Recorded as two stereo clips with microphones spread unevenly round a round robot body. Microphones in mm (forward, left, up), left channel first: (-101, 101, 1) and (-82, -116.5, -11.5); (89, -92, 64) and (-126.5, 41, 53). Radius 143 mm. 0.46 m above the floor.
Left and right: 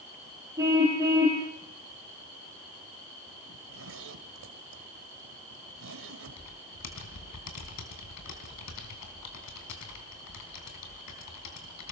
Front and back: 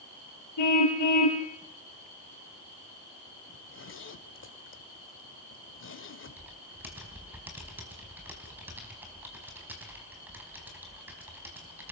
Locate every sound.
0.6 s a car horn: 5° right, 6 m
3.5 s a zipper: 65° right, 2 m
6.4 s typing on a keyboard: 65° left, 4 m